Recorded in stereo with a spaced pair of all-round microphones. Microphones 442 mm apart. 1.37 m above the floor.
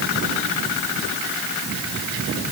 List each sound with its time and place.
Only background noise.